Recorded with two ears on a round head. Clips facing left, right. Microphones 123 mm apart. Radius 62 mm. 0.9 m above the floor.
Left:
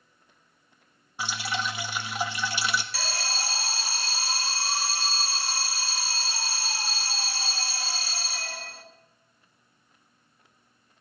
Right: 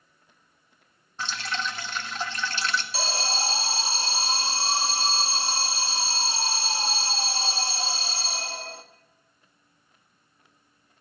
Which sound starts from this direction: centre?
Dripping, at 1.2 s.